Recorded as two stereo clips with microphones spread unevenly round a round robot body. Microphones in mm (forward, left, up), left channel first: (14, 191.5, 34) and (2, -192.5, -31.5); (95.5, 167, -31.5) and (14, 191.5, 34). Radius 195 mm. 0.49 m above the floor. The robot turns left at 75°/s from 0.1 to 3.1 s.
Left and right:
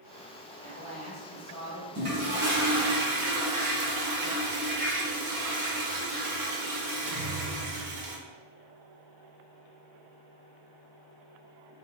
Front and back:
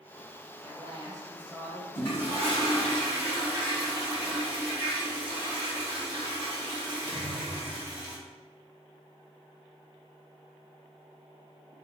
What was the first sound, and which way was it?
A woman speaking, 125° left.